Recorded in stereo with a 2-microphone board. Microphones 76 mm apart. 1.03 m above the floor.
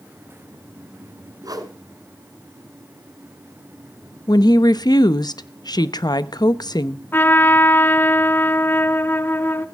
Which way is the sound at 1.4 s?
55° right (ahead or behind).